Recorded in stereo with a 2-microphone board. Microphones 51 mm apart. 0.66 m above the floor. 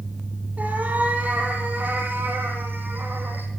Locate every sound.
0.6 s a cat meowing: 30° right (ahead or behind), 7 m; by 3.5 s 40° right (ahead or behind), 9.5 m